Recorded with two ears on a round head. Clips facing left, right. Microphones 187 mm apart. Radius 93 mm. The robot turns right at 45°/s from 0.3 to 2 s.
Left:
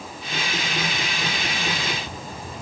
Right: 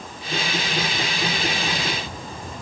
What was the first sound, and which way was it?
Only background noise.